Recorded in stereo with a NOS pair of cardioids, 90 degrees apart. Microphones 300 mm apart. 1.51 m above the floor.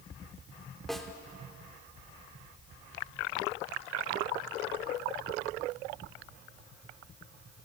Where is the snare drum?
Straight ahead, 3 m.